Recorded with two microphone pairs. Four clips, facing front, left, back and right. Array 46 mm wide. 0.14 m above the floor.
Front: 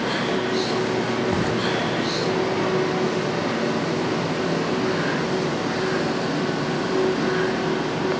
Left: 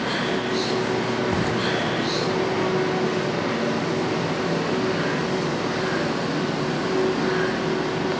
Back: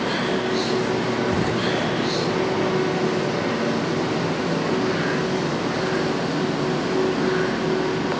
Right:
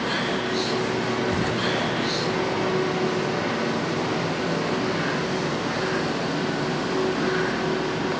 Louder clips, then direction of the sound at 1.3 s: Left 1 dB, even; 50° left.